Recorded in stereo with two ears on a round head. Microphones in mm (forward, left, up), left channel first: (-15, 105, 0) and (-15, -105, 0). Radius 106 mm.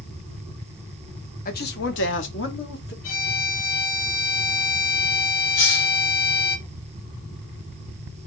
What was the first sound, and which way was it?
A man speaking, 35° left (ahead or behind).